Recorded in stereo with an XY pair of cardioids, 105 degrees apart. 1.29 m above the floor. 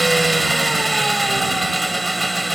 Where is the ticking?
I don't hear ticking.